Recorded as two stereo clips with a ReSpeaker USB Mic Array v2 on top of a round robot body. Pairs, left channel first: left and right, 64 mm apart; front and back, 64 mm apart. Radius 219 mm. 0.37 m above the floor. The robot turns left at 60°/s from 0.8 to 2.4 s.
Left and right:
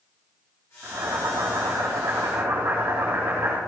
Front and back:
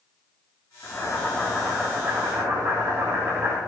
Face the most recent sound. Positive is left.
turn(degrees=-135)